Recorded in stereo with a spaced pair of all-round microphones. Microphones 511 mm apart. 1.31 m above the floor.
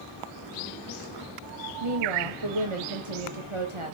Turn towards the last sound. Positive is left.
turn(degrees=-80)